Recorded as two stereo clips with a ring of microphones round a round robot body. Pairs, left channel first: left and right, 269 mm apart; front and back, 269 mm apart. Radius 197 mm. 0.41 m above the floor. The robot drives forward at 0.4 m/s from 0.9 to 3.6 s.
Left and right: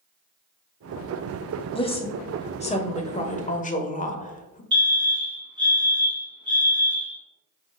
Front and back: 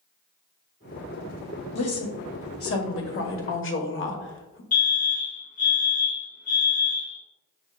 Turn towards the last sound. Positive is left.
turn(degrees=-30)